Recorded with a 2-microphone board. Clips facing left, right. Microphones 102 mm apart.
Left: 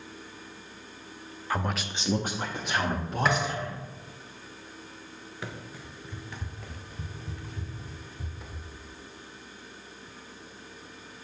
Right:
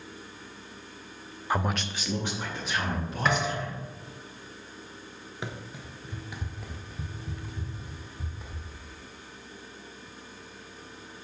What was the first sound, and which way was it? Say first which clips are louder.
A man speaking: right 2 dB; 20° right (ahead or behind).